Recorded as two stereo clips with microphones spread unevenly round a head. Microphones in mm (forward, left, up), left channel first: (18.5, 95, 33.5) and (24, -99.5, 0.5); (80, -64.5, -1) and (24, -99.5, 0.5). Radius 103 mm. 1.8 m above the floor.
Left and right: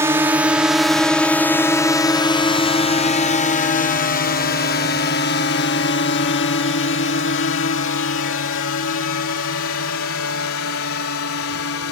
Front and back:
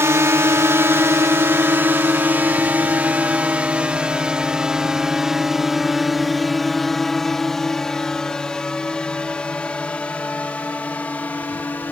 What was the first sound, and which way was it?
A drone, 145° right.